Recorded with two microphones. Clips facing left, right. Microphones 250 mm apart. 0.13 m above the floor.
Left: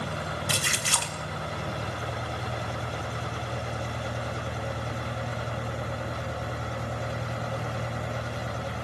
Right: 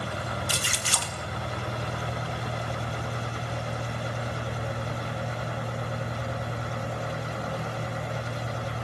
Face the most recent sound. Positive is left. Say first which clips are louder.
# left 1 dB
turn(degrees=65)  # may be behind; listen again after turning